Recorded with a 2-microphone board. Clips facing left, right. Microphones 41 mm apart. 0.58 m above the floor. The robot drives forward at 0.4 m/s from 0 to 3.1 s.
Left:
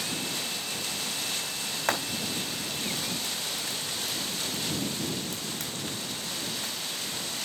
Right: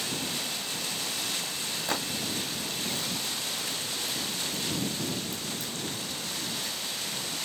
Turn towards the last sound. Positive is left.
turn(degrees=75)  # may be behind; listen again after turning